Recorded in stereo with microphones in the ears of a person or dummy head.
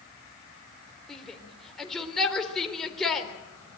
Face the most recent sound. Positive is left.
turn(degrees=0)  # may be behind; listen again after turning